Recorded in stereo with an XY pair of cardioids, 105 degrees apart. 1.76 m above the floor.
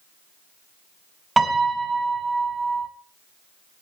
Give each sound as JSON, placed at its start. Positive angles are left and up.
{"t": 1.4, "sound": "a piano", "azimuth_deg": -20, "distance_m": 4.5}